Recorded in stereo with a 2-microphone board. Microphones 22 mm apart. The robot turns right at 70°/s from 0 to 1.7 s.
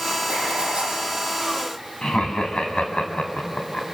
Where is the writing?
95° right, 8.5 m; by 1.0 s 40° right, 8.5 m.